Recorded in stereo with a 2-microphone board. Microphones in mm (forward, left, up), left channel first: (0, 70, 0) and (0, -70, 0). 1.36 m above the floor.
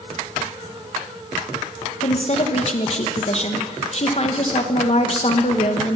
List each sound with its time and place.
2.0 s a woman speaking: 50° left (ahead or behind), 1.5 m